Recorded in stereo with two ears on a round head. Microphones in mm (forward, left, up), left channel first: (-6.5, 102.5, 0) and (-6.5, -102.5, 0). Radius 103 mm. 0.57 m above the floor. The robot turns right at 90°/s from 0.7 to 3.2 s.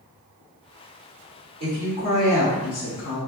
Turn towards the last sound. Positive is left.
turn(degrees=90)